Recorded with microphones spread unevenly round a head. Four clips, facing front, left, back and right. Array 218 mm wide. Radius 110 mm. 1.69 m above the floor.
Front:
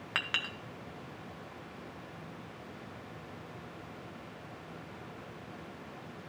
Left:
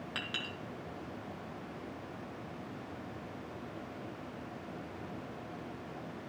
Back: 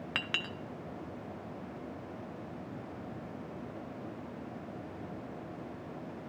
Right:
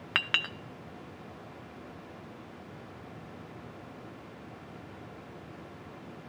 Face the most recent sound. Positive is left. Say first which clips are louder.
# right 10 dB, front 3 dB
turn(degrees=-105)